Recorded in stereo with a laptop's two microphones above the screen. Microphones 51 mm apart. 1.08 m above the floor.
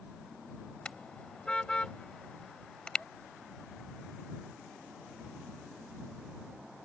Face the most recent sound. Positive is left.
turn(degrees=20)  # may be behind; listen again after turning